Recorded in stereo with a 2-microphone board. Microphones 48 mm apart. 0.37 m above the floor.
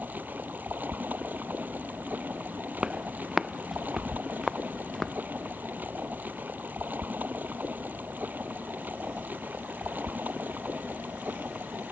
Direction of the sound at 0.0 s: 40° right (ahead or behind).